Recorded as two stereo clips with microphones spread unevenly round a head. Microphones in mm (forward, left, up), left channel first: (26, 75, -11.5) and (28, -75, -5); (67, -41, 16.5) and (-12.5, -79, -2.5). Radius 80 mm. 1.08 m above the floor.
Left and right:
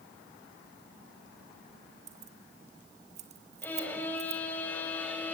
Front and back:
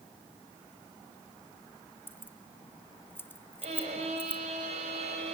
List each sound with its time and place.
2.1 s keys jangling: 45° right, 1.3 m
3.6 s a violin: 170° left, 4 m